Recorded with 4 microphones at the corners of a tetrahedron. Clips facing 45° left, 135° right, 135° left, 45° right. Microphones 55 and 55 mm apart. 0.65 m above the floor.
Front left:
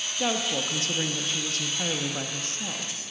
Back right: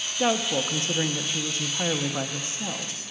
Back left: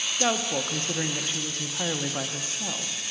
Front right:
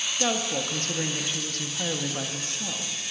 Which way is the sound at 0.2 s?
175° right.